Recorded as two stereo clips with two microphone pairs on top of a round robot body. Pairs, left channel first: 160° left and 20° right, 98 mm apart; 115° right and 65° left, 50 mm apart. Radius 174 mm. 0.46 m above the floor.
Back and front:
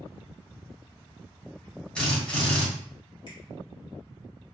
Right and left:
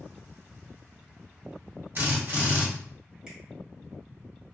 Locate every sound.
1.9 s a drill: 80° left, 1.4 m
3.3 s a finger snap: 130° left, 1.8 m